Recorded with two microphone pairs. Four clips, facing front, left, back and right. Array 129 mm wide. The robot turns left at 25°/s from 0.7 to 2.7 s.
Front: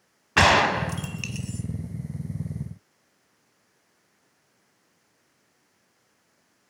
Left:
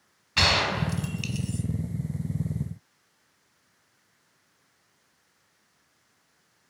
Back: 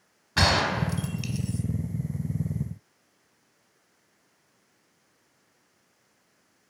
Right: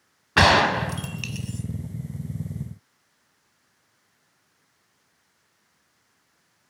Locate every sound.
0.4 s a gunshot: 50° right, 0.6 m; by 1.6 s 75° right, 0.6 m